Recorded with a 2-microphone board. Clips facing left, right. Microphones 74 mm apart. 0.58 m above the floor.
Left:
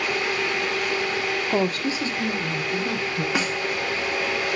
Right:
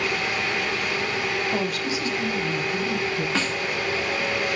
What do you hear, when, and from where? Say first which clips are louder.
1.5 s a woman speaking: left 3 dB; 30° left (ahead or behind), 0.9 m; by 3.2 s 45° left (ahead or behind), 3 m
3.4 s a snare drum: left 1 dB; 10° left (ahead or behind), 1.4 m